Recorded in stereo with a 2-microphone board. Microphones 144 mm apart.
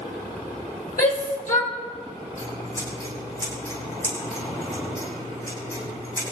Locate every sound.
1.0 s a shout: 75° left (ahead or behind), 5 m
2.4 s scissors: 20° left (ahead or behind), 8.5 m